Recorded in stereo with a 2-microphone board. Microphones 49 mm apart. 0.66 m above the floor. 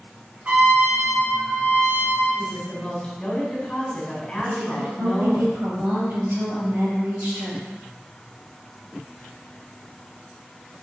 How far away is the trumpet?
About 4.5 m.